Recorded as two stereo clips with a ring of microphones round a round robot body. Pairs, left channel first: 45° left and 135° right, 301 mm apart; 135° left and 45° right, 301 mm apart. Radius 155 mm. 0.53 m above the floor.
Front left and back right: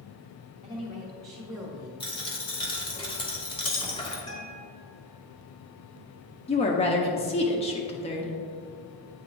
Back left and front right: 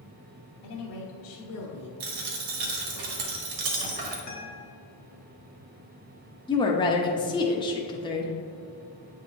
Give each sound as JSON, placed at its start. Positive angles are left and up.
{"t": 0.6, "sound": "a woman speaking", "azimuth_deg": 150, "distance_m": 1.1}
{"t": 2.0, "sound": "a dropped coin", "azimuth_deg": -30, "distance_m": 1.2}
{"t": 4.3, "sound": "a guitar", "azimuth_deg": 115, "distance_m": 1.2}
{"t": 6.5, "sound": "a woman speaking", "azimuth_deg": 80, "distance_m": 0.6}